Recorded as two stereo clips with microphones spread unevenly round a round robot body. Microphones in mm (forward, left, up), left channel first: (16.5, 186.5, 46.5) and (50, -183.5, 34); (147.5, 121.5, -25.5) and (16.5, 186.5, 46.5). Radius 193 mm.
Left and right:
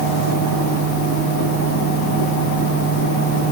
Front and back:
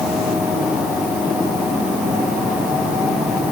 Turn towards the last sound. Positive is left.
No sound to turn to.